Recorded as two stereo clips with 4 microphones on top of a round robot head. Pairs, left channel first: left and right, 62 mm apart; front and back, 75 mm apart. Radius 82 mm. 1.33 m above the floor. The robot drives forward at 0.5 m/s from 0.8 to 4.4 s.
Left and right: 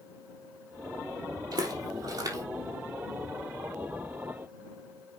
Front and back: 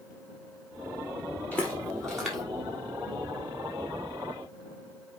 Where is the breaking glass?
No breaking glass in this recording.